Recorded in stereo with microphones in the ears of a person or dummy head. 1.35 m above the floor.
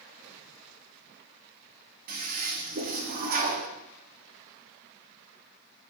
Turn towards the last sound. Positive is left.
turn(degrees=-50)  # may be behind; listen again after turning